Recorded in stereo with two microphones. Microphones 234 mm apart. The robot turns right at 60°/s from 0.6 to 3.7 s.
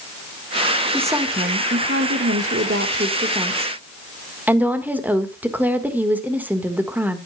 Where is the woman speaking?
175° right, 1.5 m; by 7.2 s 10° right, 1.5 m.